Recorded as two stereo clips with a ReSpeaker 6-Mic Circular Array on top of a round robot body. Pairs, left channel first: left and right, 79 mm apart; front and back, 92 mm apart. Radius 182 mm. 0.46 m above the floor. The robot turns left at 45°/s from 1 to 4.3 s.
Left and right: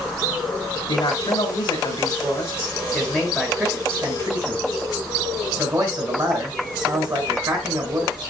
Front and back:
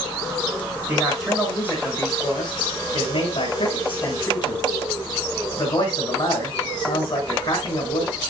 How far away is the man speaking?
About 7.5 m.